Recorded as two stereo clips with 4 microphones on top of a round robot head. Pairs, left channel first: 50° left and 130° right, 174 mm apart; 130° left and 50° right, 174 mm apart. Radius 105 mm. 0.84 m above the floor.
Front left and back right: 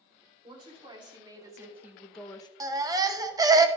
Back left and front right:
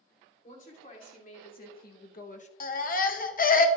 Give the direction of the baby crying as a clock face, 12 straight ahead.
7 o'clock.